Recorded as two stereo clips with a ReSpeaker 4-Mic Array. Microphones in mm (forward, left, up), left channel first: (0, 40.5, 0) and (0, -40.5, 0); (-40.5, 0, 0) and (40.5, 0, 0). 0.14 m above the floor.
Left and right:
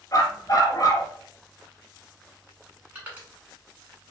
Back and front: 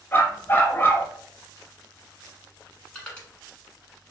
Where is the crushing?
120° right, 1.2 m.